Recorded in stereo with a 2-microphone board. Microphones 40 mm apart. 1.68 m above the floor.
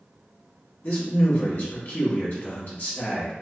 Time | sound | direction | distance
0.8 | a man speaking | 50° left (ahead or behind) | 1.1 m